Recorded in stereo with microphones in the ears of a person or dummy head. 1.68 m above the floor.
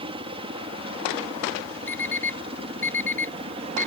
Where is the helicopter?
25° right (ahead or behind).